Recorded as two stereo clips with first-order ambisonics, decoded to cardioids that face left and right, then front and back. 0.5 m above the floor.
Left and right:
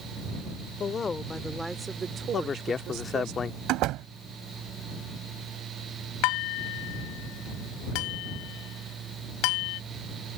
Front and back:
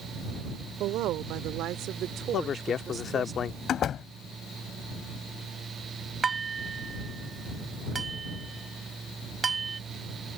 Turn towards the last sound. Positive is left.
turn(degrees=110)